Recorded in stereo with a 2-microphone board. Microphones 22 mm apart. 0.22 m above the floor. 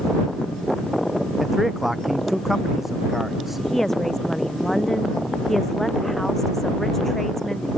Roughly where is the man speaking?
Centre.